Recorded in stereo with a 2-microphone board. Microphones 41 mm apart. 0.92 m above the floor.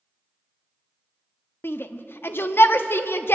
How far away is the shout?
About 1.2 m.